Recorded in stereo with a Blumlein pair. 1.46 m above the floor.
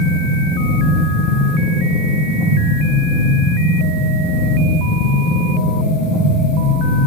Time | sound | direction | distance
0.0 | a machine running | 30° left | 2.5 m